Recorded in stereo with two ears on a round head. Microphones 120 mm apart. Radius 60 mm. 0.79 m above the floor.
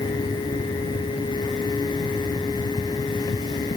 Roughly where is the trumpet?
No trumpet in this recording.